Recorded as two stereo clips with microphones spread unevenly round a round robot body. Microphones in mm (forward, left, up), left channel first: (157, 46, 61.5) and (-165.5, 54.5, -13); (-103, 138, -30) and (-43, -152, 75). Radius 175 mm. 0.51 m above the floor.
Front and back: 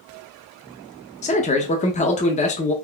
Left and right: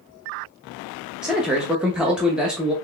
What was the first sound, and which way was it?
A man speaking, 70° left.